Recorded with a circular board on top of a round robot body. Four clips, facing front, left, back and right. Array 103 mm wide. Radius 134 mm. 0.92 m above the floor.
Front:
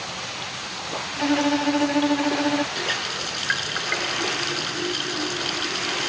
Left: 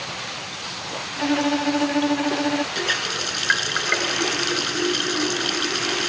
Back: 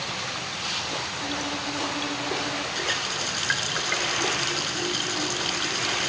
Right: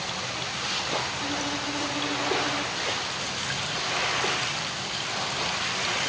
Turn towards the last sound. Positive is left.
turn(degrees=80)